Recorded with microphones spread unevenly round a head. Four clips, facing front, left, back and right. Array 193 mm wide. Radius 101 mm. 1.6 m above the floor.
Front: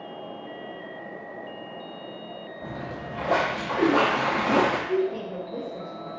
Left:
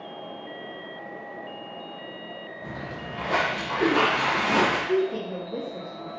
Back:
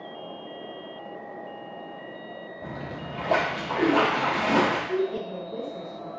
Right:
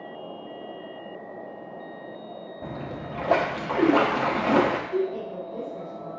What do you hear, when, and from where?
2.6 s a splash: 90° right, 0.8 m
4.9 s a woman speaking: 90° left, 1.3 m